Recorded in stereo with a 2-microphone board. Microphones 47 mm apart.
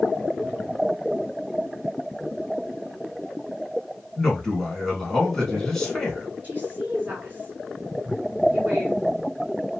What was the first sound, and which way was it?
A man speaking, centre (ahead or behind).